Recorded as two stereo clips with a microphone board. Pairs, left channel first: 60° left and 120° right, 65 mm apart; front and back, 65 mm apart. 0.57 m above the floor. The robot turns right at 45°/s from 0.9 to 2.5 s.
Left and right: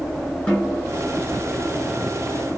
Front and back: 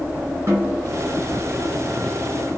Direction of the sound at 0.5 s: 130° left.